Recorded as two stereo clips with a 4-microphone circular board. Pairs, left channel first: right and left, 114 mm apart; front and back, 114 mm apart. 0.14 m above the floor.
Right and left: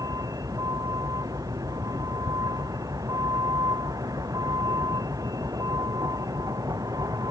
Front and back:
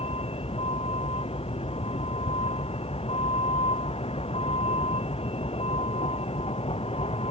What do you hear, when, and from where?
0.0 s a vehicle: 30° left